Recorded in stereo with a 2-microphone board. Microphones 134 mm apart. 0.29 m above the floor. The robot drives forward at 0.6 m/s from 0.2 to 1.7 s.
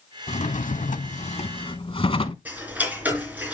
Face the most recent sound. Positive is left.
turn(degrees=-10)  # may be behind; listen again after turning